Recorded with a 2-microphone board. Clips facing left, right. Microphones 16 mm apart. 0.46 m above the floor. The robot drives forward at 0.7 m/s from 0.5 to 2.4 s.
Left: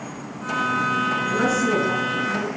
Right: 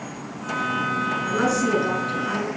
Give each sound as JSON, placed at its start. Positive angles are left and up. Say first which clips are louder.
{"t": 1.3, "sound": "a woman speaking", "louder": "right 2 dB", "side_deg": -70, "distance_m": 5.0}